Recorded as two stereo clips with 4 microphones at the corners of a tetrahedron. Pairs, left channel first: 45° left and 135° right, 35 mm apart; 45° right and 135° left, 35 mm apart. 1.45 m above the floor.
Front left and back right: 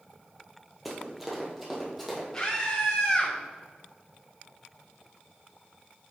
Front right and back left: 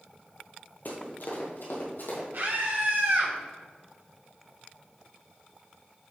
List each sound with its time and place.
0.8 s running footsteps: 45° right, 2 m
2.3 s a scream: 125° left, 3.5 m